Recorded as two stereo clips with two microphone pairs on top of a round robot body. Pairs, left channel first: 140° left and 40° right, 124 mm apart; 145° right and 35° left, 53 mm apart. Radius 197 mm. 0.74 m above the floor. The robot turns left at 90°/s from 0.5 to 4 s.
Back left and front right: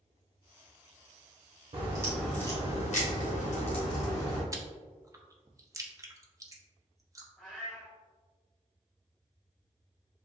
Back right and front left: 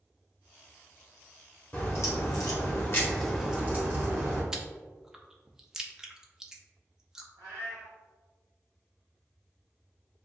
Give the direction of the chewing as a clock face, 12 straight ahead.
2 o'clock.